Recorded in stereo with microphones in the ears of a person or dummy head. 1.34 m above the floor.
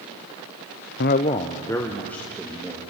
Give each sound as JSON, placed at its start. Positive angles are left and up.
{"t": 1.0, "sound": "a man speaking", "side_deg": 50, "distance_m": 0.6}